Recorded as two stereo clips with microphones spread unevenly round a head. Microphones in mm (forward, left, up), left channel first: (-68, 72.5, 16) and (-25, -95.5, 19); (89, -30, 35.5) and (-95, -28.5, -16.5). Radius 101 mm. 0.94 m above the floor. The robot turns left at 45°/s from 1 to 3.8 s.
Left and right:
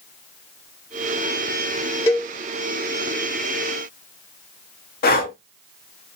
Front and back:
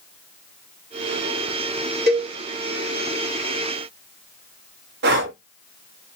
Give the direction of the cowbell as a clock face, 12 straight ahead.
6 o'clock.